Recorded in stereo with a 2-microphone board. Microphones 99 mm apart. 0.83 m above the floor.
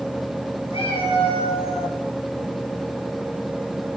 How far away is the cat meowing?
About 5.5 m.